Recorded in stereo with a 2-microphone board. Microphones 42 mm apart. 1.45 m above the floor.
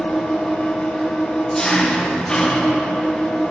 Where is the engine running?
20° left (ahead or behind), 1.0 m.